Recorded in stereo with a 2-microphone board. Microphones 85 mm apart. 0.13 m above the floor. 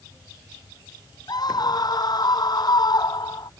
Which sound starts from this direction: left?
A scream, at 1.3 s.